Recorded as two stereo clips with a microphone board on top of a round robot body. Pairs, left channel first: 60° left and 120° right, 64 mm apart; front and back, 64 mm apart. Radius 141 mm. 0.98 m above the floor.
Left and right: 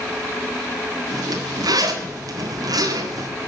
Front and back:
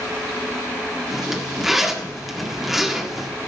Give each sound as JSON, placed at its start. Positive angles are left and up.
{"t": 1.1, "sound": "a zipper", "azimuth_deg": -95, "distance_m": 1.8}